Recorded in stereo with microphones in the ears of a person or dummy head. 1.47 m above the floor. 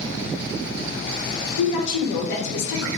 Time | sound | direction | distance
1.6 | a woman speaking | 70° left (ahead or behind) | 0.9 m